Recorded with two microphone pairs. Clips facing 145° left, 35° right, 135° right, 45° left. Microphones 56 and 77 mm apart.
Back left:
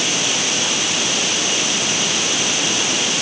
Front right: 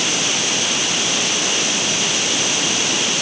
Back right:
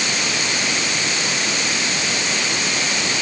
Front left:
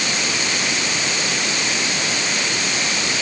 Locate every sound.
Only background noise.